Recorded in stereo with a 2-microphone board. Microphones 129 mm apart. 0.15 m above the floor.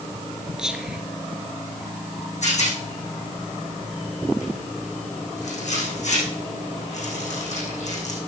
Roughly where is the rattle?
Left.